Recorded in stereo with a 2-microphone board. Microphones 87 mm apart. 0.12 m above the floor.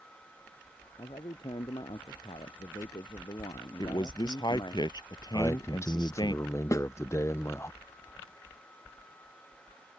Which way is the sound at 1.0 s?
85° left.